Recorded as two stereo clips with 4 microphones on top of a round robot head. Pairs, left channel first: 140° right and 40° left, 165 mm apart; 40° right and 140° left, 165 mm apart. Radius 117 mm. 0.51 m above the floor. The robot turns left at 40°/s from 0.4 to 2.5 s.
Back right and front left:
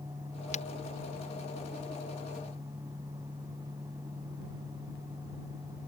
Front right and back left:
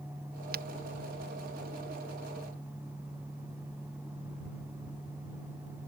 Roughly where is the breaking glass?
Behind.